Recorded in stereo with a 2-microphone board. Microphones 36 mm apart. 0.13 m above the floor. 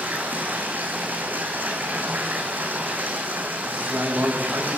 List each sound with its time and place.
0.0 s running water: 60° right (ahead or behind), 5 m
3.6 s a man speaking: 75° right (ahead or behind), 9 m